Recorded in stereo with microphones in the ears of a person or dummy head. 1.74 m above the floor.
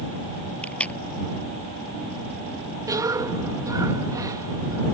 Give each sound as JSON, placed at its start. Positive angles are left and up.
{"t": 0.6, "sound": "tape being pulled", "side_deg": 15}
{"t": 2.9, "sound": "a cough", "side_deg": -10}